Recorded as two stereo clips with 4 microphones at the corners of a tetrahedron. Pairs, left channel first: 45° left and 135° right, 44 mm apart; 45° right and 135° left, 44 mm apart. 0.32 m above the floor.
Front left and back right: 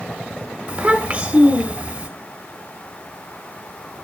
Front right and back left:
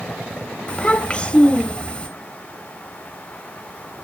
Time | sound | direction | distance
0.7 | a child speaking | 90° right | 1.2 m